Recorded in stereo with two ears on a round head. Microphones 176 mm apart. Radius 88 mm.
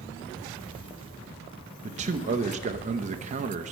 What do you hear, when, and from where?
1.8 s a man speaking: 35° right (ahead or behind), 0.6 m